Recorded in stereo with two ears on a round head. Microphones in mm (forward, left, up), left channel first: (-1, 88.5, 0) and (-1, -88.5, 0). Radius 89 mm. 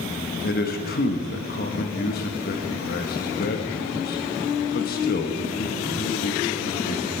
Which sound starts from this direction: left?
A man speaking, at 0.4 s.